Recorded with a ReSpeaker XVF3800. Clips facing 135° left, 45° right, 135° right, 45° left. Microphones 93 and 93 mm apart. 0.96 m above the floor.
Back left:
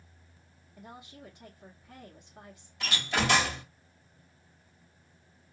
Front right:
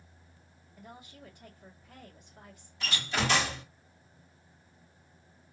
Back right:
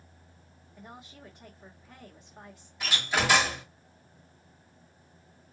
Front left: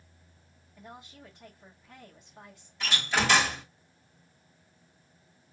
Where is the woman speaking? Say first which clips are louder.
Back left 2 dB, even; 155° left, 1.4 m.